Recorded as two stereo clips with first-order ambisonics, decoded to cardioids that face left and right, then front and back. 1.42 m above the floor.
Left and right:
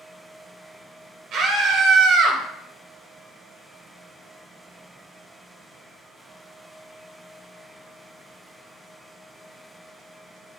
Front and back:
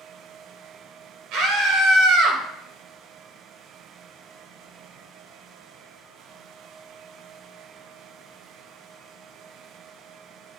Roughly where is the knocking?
No knocking in this recording.